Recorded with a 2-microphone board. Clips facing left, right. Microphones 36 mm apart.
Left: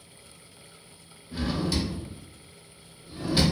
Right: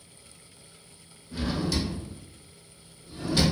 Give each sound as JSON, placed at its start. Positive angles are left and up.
{"t": 1.3, "sound": "a drawer", "side_deg": 15, "distance_m": 0.7}